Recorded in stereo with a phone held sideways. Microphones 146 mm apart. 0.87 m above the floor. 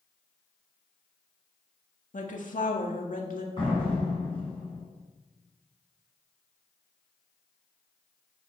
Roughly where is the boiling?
I don't hear boiling.